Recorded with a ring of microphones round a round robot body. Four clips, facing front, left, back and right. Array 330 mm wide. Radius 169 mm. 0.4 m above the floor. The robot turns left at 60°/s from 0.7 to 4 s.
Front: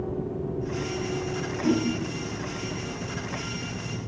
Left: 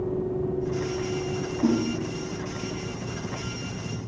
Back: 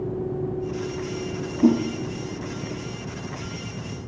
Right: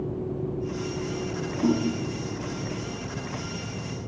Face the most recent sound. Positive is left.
turn(degrees=30)